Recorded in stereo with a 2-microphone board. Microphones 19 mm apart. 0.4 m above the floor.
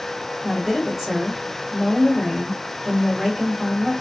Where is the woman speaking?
5° right (ahead or behind), 1.6 m.